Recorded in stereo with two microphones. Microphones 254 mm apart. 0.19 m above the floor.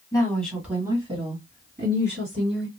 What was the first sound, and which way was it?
A woman speaking, 15° left (ahead or behind).